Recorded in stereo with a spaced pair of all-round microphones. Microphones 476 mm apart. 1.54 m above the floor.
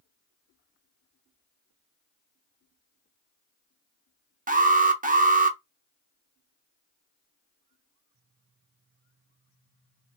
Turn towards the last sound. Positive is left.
turn(degrees=-15)  # may be behind; listen again after turning